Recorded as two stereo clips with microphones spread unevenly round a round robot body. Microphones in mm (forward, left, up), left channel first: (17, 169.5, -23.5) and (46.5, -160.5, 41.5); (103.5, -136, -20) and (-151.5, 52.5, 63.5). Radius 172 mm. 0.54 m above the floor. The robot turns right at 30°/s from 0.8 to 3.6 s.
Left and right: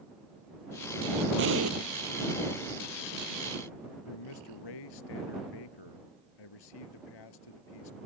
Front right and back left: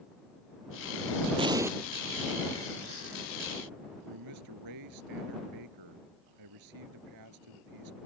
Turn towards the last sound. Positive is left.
turn(degrees=110)